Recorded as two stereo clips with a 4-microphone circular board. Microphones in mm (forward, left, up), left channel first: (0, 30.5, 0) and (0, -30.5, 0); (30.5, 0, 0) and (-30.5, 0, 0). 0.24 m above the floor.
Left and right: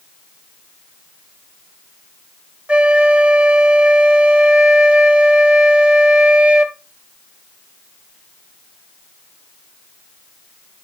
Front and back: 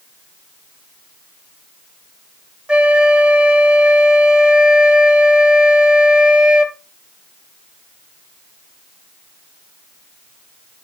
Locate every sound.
2.7 s a flute: 130° right, 0.9 m